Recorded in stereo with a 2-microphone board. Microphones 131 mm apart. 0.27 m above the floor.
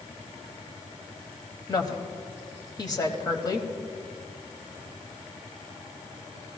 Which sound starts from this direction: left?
A woman speaking, at 1.7 s.